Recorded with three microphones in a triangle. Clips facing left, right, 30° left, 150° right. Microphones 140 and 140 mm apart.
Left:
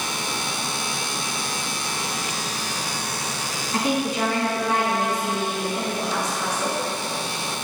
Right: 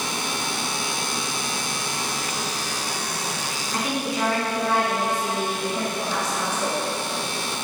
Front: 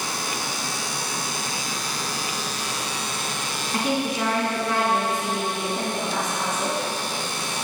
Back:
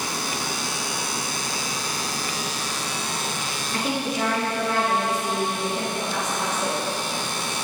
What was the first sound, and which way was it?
A woman speaking, 45° left.